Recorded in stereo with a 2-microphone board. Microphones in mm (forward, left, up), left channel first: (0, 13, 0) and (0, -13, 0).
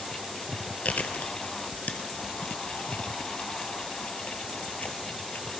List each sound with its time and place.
0.8 s chewing: 80° left, 1.0 m